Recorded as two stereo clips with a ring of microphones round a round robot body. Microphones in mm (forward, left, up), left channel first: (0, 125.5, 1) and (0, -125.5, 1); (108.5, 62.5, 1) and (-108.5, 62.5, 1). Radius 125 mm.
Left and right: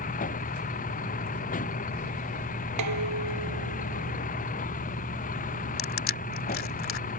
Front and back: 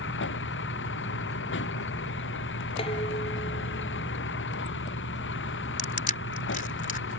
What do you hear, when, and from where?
0.0 s a vehicle: 30° left
2.8 s dishes clattering: 70° right
5.8 s crushing: 50° left